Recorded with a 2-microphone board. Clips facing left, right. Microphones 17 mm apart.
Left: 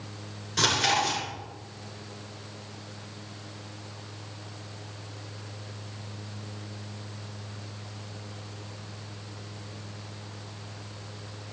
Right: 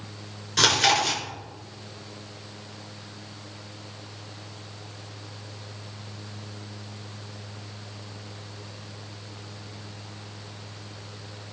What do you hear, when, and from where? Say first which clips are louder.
0.6 s chewing: right 4 dB; 20° right (ahead or behind), 3 m